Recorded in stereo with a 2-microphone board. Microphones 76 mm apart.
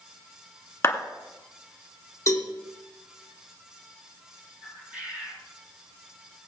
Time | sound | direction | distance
0.8 | a clap | 35° left (ahead or behind) | 2 m
2.3 | a cowbell | 40° left (ahead or behind) | 1.8 m
4.6 | a bird | 20° right (ahead or behind) | 4.5 m